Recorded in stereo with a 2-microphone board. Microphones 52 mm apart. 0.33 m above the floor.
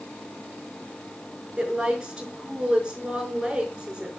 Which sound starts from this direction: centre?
A woman speaking, at 1.6 s.